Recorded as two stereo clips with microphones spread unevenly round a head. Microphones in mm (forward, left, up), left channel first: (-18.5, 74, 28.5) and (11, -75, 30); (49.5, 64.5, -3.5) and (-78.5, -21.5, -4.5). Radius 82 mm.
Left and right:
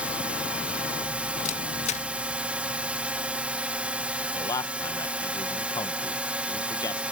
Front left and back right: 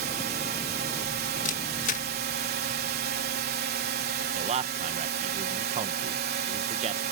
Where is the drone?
160° right.